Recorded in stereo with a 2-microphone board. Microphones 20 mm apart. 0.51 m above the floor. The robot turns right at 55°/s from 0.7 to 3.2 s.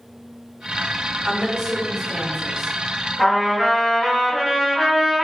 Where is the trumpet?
5° right (ahead or behind), 0.9 m.